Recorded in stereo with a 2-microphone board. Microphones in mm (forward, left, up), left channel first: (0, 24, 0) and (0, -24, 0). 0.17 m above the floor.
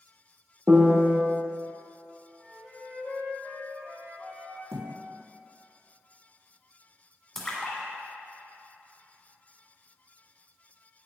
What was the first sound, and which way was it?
A piano, 30° right (ahead or behind).